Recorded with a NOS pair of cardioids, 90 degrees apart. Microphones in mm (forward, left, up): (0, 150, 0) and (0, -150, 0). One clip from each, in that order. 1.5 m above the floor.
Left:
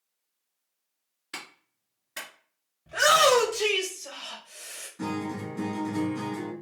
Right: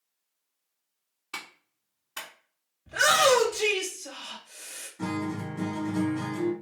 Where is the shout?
5° left, 1.9 m.